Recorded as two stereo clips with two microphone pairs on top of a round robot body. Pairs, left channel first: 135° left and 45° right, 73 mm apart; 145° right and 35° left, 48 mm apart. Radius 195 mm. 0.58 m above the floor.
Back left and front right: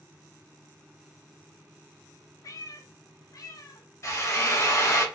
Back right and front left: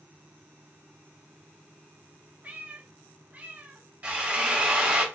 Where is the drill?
95° left, 1.4 m.